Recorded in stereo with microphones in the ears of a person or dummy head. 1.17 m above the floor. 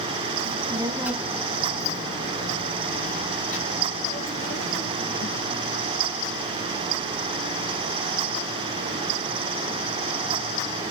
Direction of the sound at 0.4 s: 35° right (ahead or behind).